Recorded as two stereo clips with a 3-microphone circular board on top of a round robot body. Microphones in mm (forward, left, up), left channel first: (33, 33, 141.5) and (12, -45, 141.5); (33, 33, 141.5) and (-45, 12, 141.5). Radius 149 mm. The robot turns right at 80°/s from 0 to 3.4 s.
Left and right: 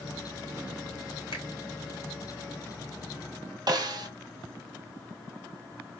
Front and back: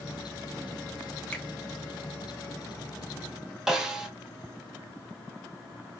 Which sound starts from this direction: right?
A snare drum, at 3.7 s.